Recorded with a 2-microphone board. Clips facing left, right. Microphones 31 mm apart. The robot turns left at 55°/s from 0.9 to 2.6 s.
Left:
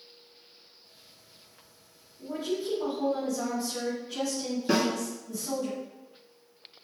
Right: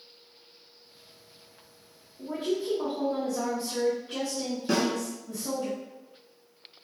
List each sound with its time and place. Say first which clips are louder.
2.2 s a woman speaking: right 2 dB; 65° right (ahead or behind), 2 m; by 5.7 s 90° right, 2 m
4.7 s a snare drum: left 1 dB; 5° left (ahead or behind), 1.9 m